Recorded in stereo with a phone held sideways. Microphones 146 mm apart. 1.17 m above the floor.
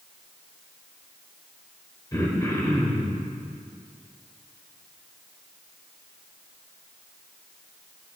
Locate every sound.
2.1 s throat clearing: 25° left (ahead or behind), 2 m